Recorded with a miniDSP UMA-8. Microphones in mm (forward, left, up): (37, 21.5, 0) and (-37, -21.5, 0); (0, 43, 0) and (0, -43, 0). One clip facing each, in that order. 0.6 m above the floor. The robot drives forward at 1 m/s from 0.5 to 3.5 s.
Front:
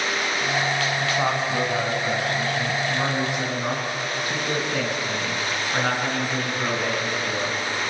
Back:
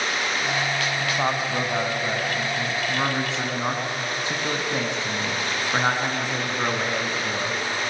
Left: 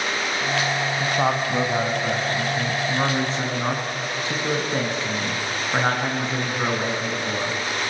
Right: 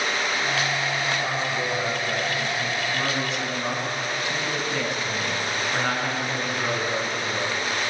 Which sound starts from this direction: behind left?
A man speaking, at 1.0 s.